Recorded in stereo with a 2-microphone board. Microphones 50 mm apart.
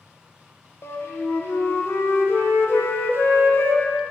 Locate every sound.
0.8 s a flute: 50° left (ahead or behind), 0.6 m